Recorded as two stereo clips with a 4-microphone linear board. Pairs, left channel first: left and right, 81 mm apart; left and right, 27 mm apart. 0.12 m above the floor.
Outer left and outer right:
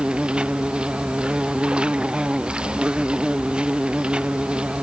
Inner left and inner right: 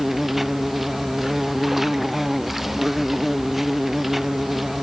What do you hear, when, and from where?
0.0 s an insect: 10° right (ahead or behind)